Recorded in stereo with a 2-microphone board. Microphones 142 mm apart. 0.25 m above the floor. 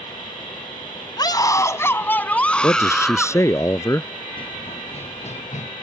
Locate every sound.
1.2 s a scream: 30° left (ahead or behind); by 3.4 s centre (ahead or behind)
2.6 s a man speaking: 20° left (ahead or behind)
4.4 s running footsteps: 35° left (ahead or behind); by 5.7 s 60° left (ahead or behind)